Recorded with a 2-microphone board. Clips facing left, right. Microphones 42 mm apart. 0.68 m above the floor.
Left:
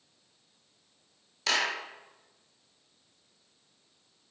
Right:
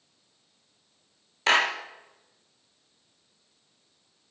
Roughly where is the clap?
Right.